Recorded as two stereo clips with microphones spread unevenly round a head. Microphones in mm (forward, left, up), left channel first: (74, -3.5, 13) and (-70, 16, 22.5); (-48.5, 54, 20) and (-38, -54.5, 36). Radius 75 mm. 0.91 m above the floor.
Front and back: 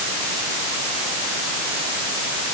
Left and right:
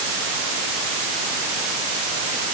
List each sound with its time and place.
Only background noise.